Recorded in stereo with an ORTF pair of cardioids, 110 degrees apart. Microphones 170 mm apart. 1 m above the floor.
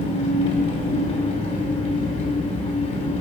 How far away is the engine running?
About 2.5 m.